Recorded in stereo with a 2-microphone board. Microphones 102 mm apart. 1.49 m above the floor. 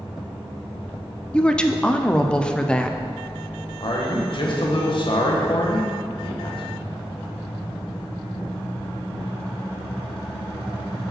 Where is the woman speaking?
10° left (ahead or behind), 0.6 m.